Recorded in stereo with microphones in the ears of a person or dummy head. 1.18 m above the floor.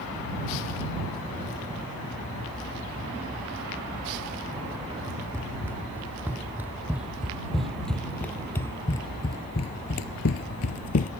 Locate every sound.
5.3 s running footsteps: 10° right (ahead or behind); by 11.1 s 40° left (ahead or behind)